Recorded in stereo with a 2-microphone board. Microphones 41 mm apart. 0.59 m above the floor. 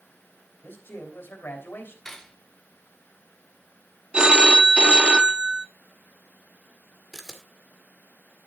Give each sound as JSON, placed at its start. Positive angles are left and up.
{"t": 0.6, "sound": "a man speaking", "side_deg": 70, "distance_m": 3.0}
{"t": 2.0, "sound": "cutlery clinking", "side_deg": 10, "distance_m": 1.3}
{"t": 4.1, "sound": "a phone ringing", "side_deg": -25, "distance_m": 0.6}
{"t": 7.1, "sound": "a camera shutter", "side_deg": 10, "distance_m": 1.9}